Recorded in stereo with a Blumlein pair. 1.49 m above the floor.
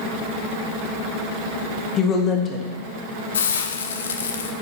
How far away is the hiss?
About 0.7 m.